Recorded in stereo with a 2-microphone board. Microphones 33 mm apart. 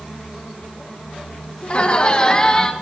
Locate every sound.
1.6 s laughter: 40° left (ahead or behind), 1.7 m; by 2.7 s 15° left (ahead or behind), 1.8 m